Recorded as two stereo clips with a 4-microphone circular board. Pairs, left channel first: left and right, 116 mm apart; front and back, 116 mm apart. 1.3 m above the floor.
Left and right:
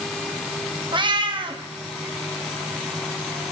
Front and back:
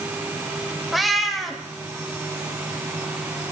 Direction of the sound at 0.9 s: 90° right.